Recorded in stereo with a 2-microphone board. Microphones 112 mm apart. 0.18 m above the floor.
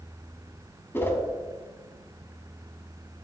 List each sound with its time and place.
0.9 s a whoosh: 20° left (ahead or behind), 1.6 m